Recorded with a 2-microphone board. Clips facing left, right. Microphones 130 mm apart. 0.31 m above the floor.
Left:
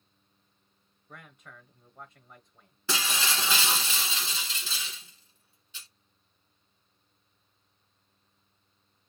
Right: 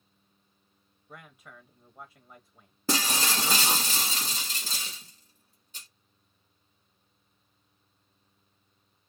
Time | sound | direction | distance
1.1 | a man speaking | 5° right (ahead or behind) | 1.1 m
2.9 | breaking glass | 45° right (ahead or behind) | 1.4 m